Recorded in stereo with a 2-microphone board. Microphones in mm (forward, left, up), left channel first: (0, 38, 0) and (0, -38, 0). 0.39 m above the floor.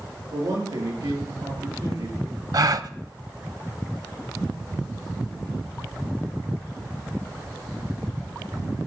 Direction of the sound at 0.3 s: 80° right.